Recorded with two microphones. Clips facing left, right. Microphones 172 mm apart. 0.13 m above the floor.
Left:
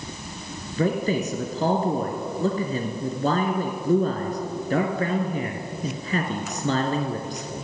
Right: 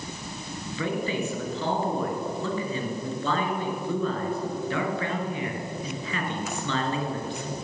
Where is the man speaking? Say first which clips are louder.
Left 5 dB; 40° left (ahead or behind), 1.5 m.